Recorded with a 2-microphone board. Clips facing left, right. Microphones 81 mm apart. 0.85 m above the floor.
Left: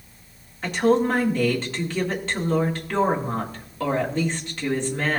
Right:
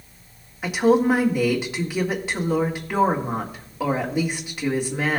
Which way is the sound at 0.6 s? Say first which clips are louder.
Right 2 dB; 10° right (ahead or behind).